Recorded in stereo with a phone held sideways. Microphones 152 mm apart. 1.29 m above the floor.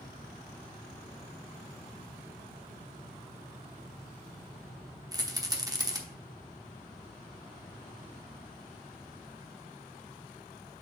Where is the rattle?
25° right (ahead or behind), 0.9 m.